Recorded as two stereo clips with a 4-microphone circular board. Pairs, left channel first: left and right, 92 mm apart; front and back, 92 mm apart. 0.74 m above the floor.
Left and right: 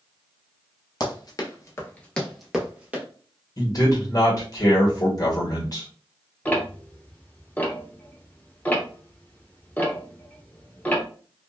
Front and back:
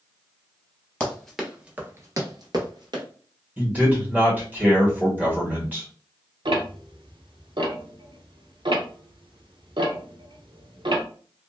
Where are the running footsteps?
75° left, 1.1 m; by 3.0 s 160° right, 1.3 m.